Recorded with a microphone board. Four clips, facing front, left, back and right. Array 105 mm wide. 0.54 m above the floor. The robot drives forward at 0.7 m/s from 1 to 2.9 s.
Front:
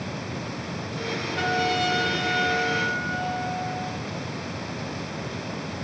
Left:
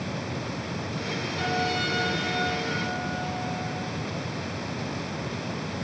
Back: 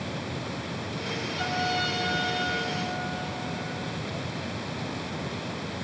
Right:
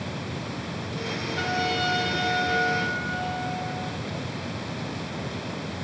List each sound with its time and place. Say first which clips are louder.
1.4 s a trumpet: right 1 dB, front 5 dB; 30° right, 5.5 m; by 4.0 s 35° right, 4.5 m